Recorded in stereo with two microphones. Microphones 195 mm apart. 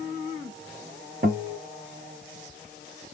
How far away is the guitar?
About 0.7 m.